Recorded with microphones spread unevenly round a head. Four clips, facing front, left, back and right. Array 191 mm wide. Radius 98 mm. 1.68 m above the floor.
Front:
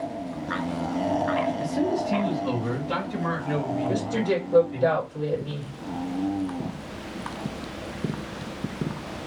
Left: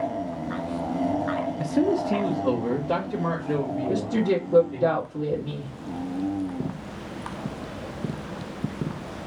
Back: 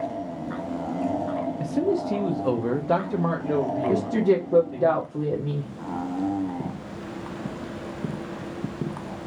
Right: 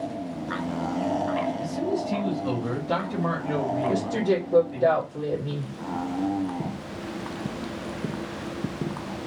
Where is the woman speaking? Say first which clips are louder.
Left 3 dB, back 6 dB; 165° left, 1.2 m.